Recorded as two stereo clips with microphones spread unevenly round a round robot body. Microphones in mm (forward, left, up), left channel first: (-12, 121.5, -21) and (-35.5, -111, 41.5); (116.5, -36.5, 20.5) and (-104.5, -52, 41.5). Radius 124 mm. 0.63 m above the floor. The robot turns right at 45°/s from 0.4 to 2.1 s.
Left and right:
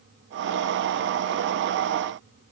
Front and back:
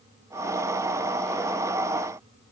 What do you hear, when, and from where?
Only background noise.